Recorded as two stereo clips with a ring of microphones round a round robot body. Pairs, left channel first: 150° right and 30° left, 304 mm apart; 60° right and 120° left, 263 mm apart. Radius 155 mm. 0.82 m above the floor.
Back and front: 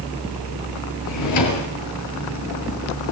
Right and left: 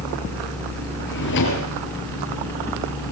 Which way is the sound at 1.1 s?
115° right.